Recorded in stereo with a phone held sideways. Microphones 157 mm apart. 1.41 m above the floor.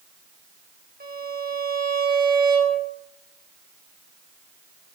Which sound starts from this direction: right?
A violin, at 1.0 s.